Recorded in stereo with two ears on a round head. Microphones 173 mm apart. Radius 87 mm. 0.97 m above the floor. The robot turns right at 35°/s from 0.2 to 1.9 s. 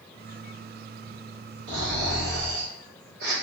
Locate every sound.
1.7 s snoring: 55° right (ahead or behind), 1.5 m; by 3.3 s 50° right (ahead or behind), 1.5 m